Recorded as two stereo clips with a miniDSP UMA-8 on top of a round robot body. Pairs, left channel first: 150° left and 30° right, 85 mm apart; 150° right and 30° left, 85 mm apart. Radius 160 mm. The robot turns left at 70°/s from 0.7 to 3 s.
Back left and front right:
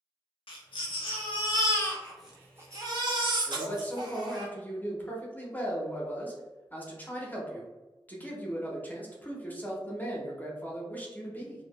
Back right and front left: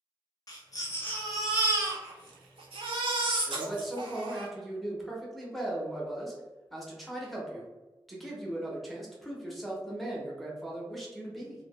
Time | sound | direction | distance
0.5 | a baby crying | 165° left | 0.5 m
3.5 | a man speaking | 120° left | 0.9 m